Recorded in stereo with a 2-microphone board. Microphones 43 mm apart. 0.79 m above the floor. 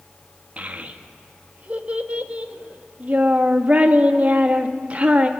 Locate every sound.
0.6 s a child speaking: 30° right (ahead or behind), 0.8 m